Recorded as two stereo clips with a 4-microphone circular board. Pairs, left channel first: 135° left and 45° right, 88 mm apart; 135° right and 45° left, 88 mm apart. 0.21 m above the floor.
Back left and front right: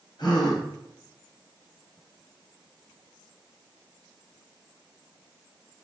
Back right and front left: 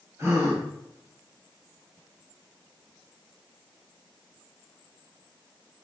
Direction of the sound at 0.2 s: 100° left.